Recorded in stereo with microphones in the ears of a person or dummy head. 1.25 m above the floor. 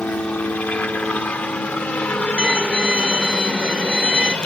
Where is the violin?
10° right (ahead or behind).